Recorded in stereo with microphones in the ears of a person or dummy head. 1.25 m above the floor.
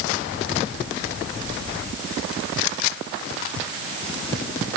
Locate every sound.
Only background noise.